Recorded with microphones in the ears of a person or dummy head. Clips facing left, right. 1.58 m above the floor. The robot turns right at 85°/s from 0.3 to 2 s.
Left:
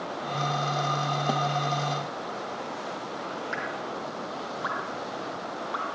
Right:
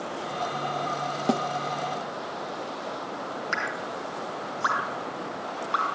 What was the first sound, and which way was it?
A snare drum, 35° right (ahead or behind).